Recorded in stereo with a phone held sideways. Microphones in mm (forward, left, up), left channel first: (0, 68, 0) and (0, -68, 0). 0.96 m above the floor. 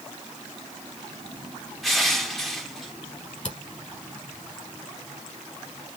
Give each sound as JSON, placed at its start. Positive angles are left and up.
{"t": 1.8, "sound": "crushing", "side_deg": 0, "distance_m": 1.1}
{"t": 3.5, "sound": "a camera shutter", "side_deg": 55, "distance_m": 1.9}